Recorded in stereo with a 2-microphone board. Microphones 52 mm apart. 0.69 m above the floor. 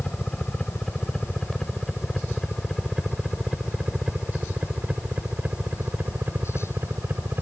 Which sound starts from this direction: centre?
A helicopter, at 0.0 s.